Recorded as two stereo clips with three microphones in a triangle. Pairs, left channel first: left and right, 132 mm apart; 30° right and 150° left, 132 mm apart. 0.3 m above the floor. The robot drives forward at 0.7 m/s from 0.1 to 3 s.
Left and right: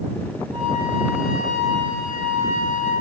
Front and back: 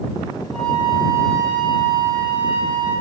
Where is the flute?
110° right, 2.5 m; by 2.9 s 135° right, 3.5 m.